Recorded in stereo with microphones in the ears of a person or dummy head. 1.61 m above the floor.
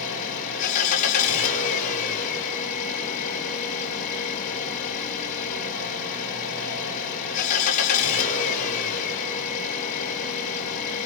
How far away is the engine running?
About 5 m.